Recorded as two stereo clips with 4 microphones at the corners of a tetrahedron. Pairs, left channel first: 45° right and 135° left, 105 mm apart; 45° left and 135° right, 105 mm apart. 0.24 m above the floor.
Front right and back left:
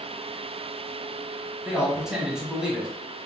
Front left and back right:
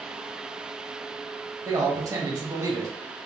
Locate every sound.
1.6 s a man speaking: 150° right, 1.1 m